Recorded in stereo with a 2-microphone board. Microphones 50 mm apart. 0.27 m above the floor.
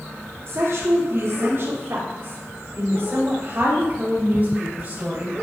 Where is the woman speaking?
65° right (ahead or behind), 4 m; by 5.3 s 25° right (ahead or behind), 6.5 m.